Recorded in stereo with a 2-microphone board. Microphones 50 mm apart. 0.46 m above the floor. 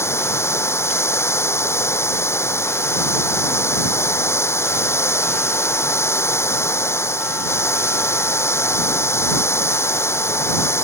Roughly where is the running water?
Left.